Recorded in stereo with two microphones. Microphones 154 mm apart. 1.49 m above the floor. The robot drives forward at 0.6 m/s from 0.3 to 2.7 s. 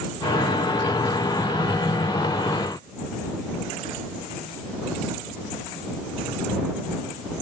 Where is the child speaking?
I don't hear a child speaking.